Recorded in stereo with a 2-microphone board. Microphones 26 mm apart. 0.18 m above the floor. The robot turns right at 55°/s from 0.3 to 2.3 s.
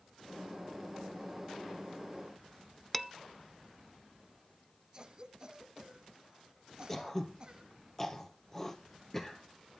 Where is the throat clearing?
15° left (ahead or behind), 3 m.